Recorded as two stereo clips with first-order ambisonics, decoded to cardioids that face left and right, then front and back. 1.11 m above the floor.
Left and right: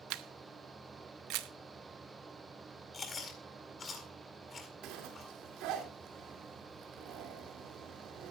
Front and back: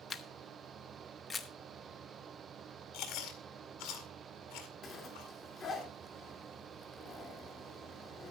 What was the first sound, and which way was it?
A camera shutter, 65° right.